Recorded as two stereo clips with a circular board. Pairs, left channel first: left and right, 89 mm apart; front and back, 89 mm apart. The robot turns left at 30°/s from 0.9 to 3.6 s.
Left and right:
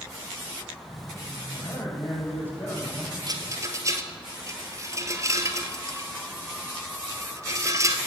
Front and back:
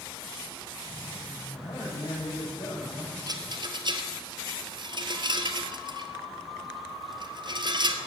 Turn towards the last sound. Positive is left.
turn(degrees=-145)